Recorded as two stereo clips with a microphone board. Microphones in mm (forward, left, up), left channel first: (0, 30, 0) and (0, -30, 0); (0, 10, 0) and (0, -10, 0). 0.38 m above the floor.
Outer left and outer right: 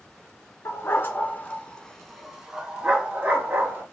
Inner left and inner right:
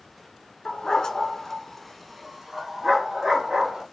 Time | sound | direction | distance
0.7 | a dog barking | 50° left (ahead or behind) | 1.3 m